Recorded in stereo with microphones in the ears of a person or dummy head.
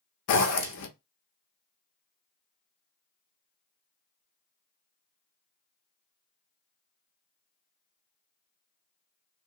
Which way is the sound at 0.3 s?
70° left (ahead or behind).